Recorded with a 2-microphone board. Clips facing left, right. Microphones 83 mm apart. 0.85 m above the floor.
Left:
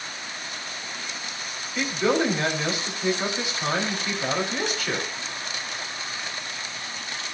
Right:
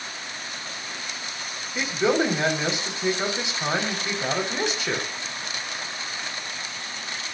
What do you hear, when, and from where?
1.8 s a man speaking: 20° right (ahead or behind), 4.5 m